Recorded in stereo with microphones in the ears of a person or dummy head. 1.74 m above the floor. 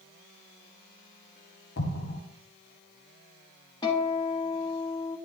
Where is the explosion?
50° left (ahead or behind), 1.1 m.